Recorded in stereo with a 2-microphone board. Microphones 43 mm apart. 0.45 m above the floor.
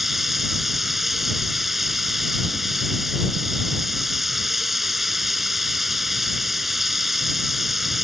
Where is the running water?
5° right (ahead or behind).